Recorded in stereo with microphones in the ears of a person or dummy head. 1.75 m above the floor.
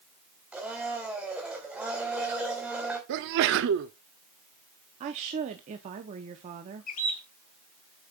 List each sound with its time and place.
0.5 s a blender: 5° right (ahead or behind), 3 m
3.1 s a sneeze: 65° right (ahead or behind), 0.7 m
5.0 s a woman speaking: 30° right (ahead or behind), 0.8 m
6.9 s a bird: 45° left (ahead or behind), 1.5 m